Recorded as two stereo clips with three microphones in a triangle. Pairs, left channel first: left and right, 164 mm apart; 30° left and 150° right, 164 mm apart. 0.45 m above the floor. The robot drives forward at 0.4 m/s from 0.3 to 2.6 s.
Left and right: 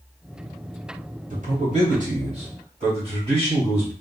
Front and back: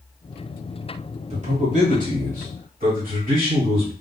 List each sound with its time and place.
1.3 s a man speaking: 115° right, 1.4 m; by 3.9 s 135° right, 1.7 m